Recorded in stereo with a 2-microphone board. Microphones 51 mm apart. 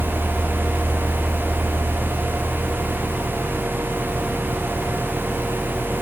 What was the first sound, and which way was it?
Only background noise.